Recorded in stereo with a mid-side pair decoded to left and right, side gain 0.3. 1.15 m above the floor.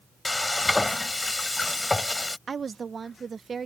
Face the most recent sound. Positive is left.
turn(degrees=-55)